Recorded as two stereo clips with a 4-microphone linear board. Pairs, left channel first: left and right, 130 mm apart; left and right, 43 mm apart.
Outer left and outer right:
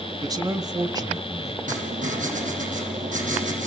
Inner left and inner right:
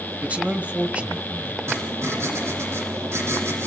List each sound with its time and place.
0.2 s a man speaking: 30° right (ahead or behind), 1.3 m
1.7 s writing: 75° right (ahead or behind), 5 m